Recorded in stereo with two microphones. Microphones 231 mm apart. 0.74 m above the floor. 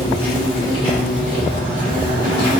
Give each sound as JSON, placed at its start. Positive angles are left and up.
{"t": 0.0, "sound": "an insect", "side_deg": 20, "distance_m": 1.3}